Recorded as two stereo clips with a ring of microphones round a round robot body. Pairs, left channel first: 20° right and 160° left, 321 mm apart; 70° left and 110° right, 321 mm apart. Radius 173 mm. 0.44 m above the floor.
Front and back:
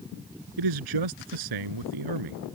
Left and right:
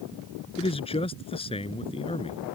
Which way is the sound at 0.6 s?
140° left.